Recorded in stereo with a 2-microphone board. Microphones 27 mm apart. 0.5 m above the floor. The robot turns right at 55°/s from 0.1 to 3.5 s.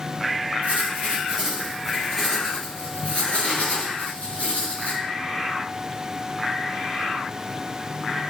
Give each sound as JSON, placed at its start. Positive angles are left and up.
{"t": 0.6, "sound": "writing", "azimuth_deg": -70, "distance_m": 4.0}